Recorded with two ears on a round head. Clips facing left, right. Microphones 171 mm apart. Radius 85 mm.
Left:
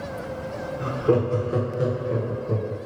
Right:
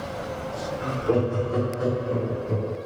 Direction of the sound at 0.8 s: 50° left (ahead or behind).